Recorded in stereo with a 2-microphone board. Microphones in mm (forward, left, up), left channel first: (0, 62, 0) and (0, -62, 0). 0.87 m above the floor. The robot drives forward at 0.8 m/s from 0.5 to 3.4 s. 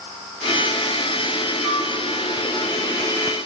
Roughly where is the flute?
Right.